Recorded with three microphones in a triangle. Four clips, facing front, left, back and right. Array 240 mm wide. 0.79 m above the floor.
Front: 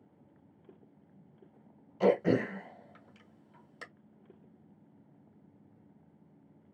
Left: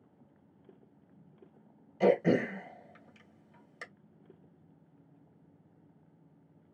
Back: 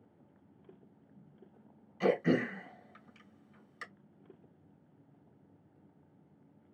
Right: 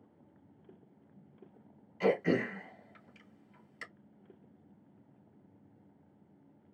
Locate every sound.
2.0 s throat clearing: 60° left, 1.9 m